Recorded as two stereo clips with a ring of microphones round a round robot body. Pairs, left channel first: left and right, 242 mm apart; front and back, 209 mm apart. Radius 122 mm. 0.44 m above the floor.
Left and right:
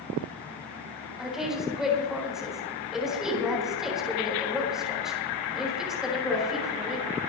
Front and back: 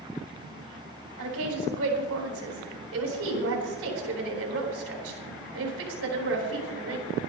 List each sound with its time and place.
1.2 s a woman speaking: straight behind, 4 m